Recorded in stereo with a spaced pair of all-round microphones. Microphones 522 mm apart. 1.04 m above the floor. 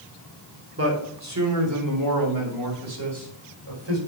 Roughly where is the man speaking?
Right.